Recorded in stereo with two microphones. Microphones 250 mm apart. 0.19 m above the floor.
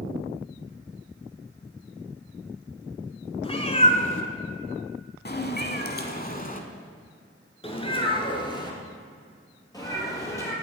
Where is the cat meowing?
25° left (ahead or behind), 1.3 m; by 10.5 s 10° left (ahead or behind), 2.5 m.